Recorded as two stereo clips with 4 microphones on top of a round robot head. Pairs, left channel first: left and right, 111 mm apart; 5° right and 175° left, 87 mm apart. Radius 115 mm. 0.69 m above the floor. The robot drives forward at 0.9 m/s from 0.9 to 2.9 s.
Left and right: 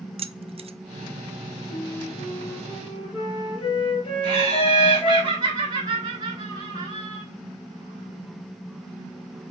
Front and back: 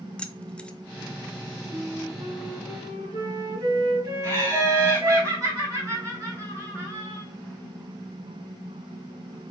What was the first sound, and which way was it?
Keys jangling, 80° right.